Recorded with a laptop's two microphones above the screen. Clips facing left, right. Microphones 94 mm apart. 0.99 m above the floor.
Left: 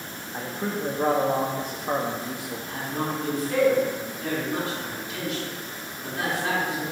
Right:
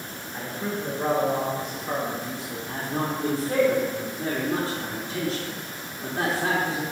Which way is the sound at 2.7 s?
35° right (ahead or behind).